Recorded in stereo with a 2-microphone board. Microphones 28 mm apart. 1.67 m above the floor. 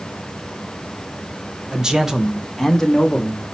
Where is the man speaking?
35° right (ahead or behind), 1.0 m; by 3.5 s 30° left (ahead or behind), 1.3 m.